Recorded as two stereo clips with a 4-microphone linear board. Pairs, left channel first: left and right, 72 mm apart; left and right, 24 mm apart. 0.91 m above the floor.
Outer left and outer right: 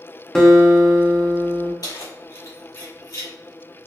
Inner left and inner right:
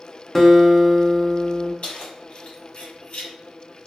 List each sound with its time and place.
0.3 s a guitar: 5° left (ahead or behind), 0.7 m
1.8 s keys jangling: 55° left (ahead or behind), 1.3 m